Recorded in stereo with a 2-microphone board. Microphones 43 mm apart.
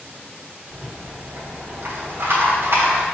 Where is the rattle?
60° right (ahead or behind), 0.8 m.